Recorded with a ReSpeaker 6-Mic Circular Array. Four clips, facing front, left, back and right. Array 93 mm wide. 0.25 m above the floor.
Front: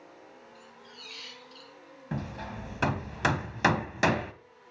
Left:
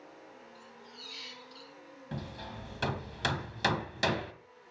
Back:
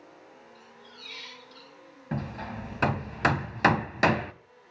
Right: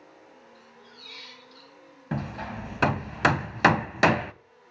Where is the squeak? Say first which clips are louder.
Even, even; 150° right, 2 m.